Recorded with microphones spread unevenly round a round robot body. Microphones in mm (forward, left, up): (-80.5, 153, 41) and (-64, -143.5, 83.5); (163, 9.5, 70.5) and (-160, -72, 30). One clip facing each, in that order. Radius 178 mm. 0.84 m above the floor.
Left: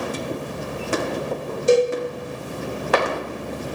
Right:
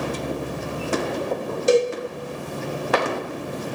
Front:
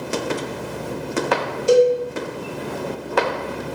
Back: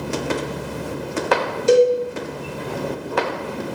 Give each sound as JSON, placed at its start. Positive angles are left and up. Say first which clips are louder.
{"t": 1.7, "sound": "a cowbell", "louder": "left 2 dB, even", "azimuth_deg": -100, "distance_m": 0.6}